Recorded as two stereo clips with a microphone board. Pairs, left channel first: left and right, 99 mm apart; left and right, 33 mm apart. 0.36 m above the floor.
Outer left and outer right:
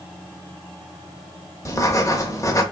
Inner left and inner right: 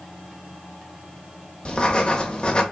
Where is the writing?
30° left (ahead or behind), 0.7 m.